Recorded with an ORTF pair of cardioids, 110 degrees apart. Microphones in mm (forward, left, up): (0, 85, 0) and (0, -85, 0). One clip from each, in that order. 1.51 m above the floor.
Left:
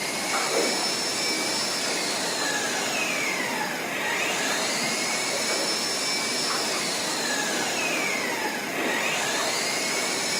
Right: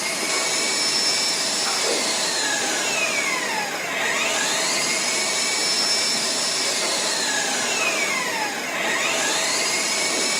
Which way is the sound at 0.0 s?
55° right.